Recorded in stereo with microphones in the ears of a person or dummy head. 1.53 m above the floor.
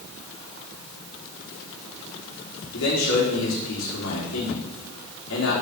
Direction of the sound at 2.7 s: 75° left (ahead or behind).